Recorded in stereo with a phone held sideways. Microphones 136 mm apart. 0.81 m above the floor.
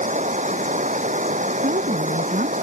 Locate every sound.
0.0 s running water: 65° right (ahead or behind)
1.6 s a woman speaking: 85° right